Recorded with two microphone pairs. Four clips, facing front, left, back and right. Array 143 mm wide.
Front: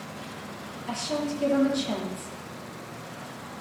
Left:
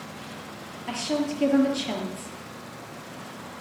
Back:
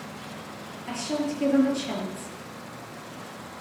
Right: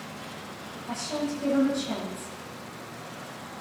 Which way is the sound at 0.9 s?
95° left.